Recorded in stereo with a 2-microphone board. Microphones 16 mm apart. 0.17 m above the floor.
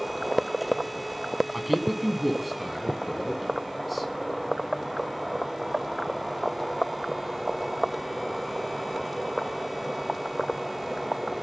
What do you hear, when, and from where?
1.5 s a man speaking: 5° right (ahead or behind), 1.8 m